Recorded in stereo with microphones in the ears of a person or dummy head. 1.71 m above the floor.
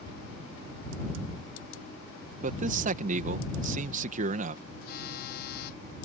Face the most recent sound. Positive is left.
turn(degrees=60)  # may be behind; listen again after turning